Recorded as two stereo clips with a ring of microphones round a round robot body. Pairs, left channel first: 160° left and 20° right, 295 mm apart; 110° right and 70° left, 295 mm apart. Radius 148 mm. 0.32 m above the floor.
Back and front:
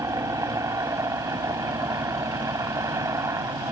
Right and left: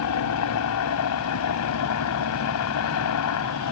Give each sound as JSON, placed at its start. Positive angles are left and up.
{"t": 0.0, "sound": "a helicopter", "azimuth_deg": -100}